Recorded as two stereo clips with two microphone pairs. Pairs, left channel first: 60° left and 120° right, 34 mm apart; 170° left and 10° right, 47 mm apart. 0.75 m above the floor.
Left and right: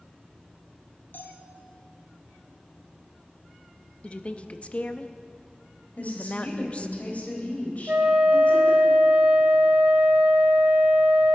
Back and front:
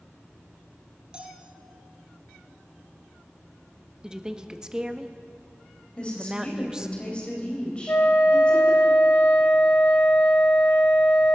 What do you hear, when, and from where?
1.1 s a bell: 55° left, 1.9 m
4.0 s a woman speaking: 55° left, 0.8 m
6.0 s a woman speaking: 105° left, 4 m
7.9 s a flute: 150° right, 2 m